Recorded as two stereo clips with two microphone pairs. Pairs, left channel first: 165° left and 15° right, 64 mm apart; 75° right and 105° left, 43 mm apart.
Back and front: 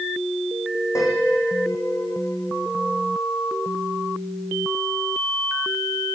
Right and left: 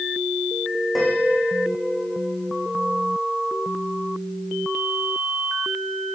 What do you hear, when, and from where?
0.9 s a piano: 165° right, 5 m